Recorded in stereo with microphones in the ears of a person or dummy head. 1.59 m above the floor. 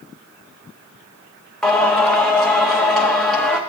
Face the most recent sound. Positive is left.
turn(degrees=0)  # may be behind; listen again after turning